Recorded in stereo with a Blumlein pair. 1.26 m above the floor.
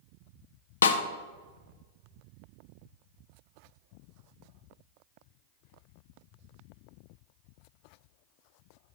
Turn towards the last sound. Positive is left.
turn(degrees=65)